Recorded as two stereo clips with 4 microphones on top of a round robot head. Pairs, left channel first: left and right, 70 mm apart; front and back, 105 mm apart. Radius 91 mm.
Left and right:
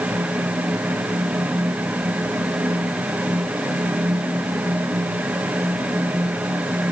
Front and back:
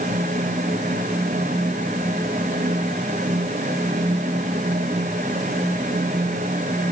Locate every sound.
Only background noise.